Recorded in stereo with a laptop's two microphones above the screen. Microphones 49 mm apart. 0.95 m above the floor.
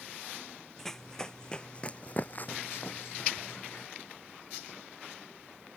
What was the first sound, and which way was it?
Running footsteps, 10° left (ahead or behind).